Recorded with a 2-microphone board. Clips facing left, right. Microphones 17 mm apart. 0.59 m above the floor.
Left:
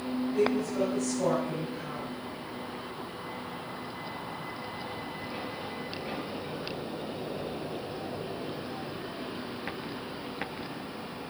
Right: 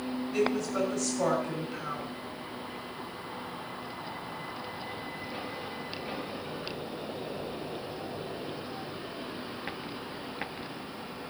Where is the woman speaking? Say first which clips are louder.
Left 1 dB; 75° right (ahead or behind), 6 m.